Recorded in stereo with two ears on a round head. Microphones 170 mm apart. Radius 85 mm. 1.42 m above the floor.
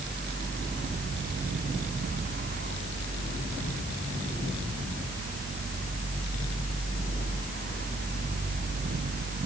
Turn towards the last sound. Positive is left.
No sound to turn to.